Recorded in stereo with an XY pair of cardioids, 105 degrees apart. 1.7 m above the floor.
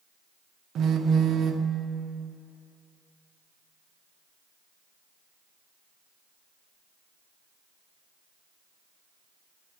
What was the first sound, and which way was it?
A phone buzzing, 60° right.